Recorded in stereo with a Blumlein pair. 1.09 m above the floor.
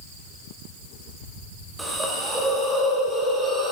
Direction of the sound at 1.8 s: 10° right.